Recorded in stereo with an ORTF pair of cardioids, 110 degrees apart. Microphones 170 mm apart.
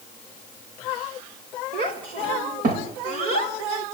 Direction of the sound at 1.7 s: 65° right.